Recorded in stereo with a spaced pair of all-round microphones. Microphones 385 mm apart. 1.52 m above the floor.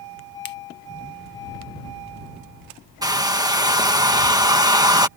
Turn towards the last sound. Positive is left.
turn(degrees=-10)  # may be behind; listen again after turning